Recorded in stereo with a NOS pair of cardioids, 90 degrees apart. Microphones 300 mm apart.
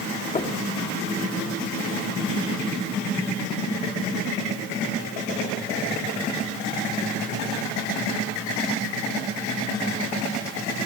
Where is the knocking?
20° left, 3 m.